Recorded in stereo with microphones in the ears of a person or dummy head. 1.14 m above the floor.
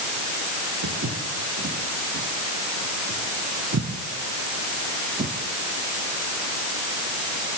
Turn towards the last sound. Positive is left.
turn(degrees=-50)  # may be behind; listen again after turning